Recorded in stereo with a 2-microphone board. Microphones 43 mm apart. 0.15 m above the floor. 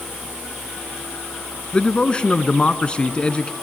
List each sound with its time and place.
1.7 s a man speaking: 25° left (ahead or behind), 1.2 m